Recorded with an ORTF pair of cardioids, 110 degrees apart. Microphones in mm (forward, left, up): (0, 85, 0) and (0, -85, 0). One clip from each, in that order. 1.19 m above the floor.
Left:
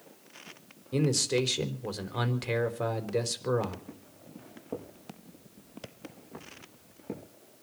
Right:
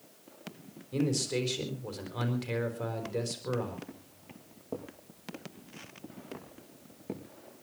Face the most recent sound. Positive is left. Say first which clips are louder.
# left 2 dB
turn(degrees=-5)